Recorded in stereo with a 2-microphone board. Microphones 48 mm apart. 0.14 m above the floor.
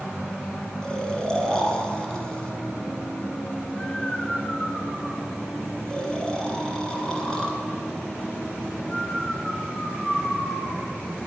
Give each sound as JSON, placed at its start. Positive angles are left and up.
{"t": 0.8, "sound": "snoring", "side_deg": 15, "distance_m": 2.0}